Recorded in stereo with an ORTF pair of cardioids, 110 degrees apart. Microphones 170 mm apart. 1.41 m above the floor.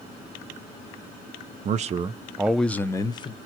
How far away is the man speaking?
About 0.6 m.